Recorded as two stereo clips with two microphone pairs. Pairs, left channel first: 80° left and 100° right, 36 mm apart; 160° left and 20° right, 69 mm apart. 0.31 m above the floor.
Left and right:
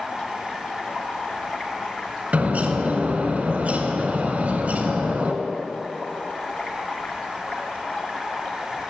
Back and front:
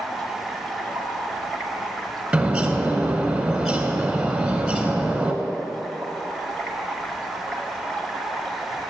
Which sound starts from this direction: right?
A bird, at 2.3 s.